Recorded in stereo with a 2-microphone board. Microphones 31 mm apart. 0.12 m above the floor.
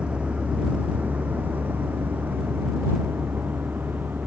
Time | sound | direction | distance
0.0 | a vehicle | 40° right (ahead or behind) | ?